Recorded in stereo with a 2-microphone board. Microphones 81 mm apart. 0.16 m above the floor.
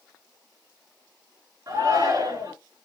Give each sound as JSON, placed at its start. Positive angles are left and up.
{"t": 1.7, "sound": "a shout", "side_deg": -45, "distance_m": 1.6}